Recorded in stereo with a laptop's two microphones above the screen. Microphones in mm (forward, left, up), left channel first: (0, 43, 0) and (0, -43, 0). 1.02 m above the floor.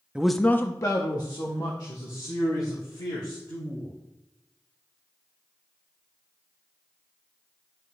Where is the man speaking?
10° right (ahead or behind), 0.6 m; by 3.9 s 55° left (ahead or behind), 3.5 m.